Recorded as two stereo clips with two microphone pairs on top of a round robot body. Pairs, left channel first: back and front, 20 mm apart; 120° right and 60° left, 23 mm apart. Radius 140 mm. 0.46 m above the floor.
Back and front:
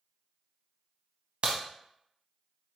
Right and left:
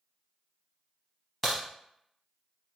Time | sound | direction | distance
1.4 | a crack | 45° right | 0.6 m